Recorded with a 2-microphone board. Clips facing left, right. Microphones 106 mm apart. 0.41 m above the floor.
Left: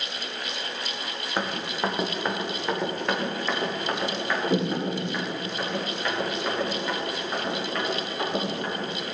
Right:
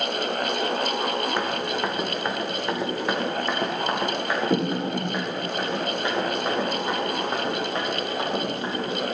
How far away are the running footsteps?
About 1.4 m.